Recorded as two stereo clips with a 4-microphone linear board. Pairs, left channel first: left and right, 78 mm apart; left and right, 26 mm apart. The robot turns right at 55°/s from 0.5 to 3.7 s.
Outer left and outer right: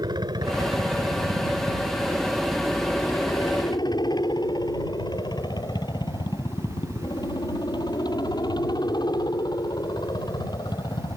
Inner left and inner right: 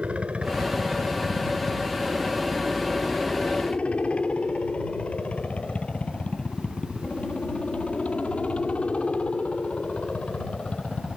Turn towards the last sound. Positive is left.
turn(degrees=60)  # may be behind; listen again after turning